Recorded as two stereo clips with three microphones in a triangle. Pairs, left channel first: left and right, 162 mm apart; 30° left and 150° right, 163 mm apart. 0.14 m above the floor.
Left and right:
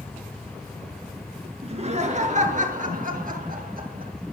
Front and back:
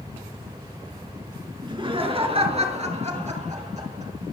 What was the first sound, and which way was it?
Laughter, 105° right.